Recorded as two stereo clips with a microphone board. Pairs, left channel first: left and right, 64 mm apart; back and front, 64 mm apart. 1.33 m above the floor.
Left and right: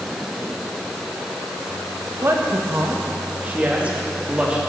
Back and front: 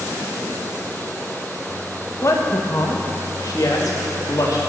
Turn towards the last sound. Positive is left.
turn(degrees=-165)